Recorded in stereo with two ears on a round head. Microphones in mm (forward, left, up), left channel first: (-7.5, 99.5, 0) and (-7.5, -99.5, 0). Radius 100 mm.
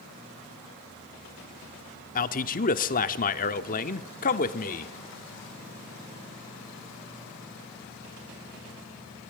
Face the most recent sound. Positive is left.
turn(degrees=40)  # may be behind; listen again after turning